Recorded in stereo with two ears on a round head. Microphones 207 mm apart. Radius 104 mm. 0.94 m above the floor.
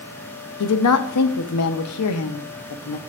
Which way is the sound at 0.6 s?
75° left (ahead or behind).